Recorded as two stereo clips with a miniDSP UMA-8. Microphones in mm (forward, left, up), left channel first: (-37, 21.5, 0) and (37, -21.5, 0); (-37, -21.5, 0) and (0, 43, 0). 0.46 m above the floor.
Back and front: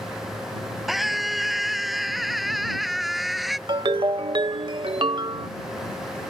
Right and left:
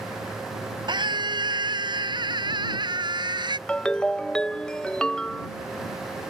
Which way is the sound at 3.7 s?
40° right.